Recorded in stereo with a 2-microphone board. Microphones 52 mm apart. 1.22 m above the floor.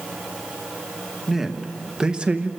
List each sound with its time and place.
1.3 s a man speaking: 5° right (ahead or behind), 1.4 m; by 2.5 s 30° right (ahead or behind), 0.9 m